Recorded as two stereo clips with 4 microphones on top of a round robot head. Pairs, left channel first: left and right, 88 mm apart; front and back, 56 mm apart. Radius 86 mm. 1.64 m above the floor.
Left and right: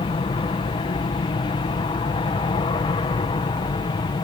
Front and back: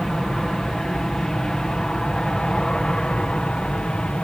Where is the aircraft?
80° left; by 4.2 s 70° left.